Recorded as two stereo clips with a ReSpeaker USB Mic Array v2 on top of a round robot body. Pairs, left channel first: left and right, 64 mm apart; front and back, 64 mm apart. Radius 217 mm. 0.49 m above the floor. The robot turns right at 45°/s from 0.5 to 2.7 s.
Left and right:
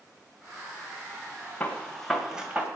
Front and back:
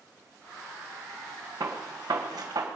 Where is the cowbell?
I don't hear a cowbell.